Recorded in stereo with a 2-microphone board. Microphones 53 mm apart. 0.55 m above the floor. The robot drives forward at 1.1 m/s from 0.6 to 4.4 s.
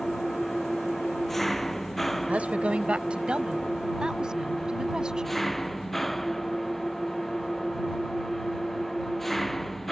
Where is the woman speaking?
30° right (ahead or behind); by 5.4 s 15° right (ahead or behind).